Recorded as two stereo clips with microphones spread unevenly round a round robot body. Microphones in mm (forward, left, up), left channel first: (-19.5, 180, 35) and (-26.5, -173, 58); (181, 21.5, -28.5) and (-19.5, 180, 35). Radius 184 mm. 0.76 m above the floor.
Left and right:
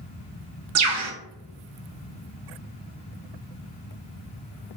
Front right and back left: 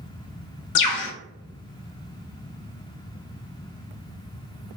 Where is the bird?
45° right, 0.5 m.